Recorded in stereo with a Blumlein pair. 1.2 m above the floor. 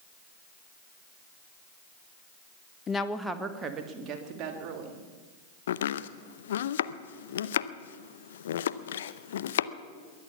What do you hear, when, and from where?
2.9 s a woman speaking: 25° left, 1.1 m; by 5.0 s 40° right, 3.5 m
5.7 s chopping: 60° left, 0.6 m